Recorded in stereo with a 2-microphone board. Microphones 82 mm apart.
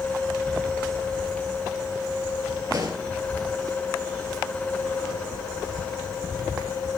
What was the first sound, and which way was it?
A pop, 50° right (ahead or behind).